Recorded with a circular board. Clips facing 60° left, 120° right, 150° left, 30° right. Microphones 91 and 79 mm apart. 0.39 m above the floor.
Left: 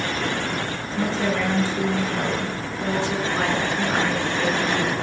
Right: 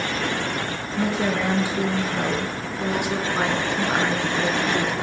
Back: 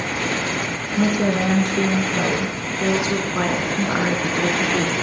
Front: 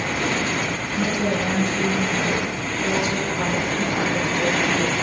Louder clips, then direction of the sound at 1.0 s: Even, back 4 dB; 160° left.